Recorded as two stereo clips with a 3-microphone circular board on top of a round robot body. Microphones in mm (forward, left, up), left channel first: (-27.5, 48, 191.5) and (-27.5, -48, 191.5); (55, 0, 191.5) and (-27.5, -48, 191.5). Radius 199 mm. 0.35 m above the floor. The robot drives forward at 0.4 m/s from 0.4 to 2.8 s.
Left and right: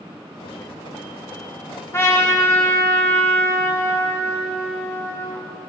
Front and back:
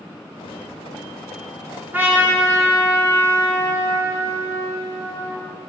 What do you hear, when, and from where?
1.9 s a trumpet: 145° left, 2.0 m; by 5.4 s 150° left, 2 m